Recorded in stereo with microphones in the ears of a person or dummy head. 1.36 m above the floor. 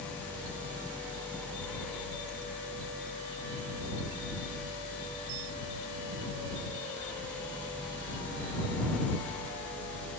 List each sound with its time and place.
Only background noise.